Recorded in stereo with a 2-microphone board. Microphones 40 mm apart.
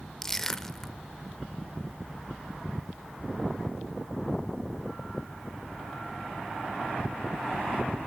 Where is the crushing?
15° left (ahead or behind), 1.2 m.